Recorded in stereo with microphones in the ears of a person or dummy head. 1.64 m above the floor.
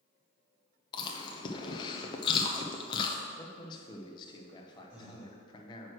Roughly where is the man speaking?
Left.